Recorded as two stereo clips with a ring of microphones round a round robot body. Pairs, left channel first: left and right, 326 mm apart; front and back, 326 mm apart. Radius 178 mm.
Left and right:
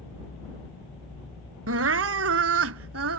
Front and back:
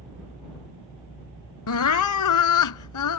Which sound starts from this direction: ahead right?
Crying, at 1.7 s.